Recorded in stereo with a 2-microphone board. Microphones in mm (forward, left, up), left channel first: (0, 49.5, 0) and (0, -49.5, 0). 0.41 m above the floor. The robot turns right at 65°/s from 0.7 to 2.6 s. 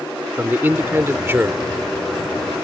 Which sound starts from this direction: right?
A man speaking, at 0.4 s.